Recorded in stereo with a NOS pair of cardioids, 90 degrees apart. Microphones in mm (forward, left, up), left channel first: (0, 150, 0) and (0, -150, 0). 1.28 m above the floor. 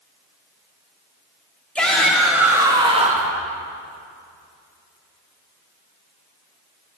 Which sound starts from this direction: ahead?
A shout, at 1.8 s.